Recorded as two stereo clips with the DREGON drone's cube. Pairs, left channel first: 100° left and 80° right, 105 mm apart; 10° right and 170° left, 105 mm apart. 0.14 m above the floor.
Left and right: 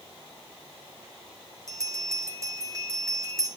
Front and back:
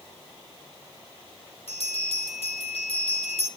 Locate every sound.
1.7 s a bell: 20° right, 6.5 m